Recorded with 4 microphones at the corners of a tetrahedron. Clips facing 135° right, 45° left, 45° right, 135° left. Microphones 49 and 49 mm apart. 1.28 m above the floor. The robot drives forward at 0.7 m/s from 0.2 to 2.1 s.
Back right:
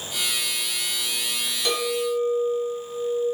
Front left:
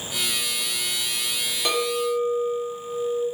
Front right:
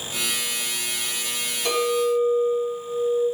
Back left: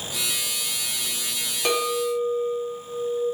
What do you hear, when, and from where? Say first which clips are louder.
1.6 s a clink: front left 1 dB, front right 2 dB; 115° left, 0.9 m; by 3.2 s 130° left, 1.1 m